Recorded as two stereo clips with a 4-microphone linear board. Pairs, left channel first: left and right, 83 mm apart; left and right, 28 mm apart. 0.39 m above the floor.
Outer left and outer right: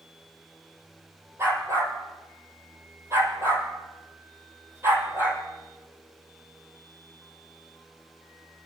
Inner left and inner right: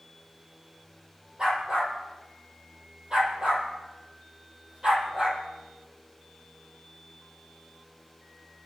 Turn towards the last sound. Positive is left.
turn(degrees=-35)  # may be behind; listen again after turning